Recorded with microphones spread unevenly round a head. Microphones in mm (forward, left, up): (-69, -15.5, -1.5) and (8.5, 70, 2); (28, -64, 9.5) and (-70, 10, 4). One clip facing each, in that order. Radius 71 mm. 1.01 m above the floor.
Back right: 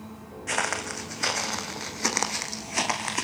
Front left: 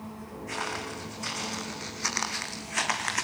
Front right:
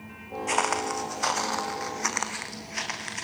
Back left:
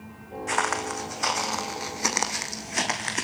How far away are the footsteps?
About 3 m.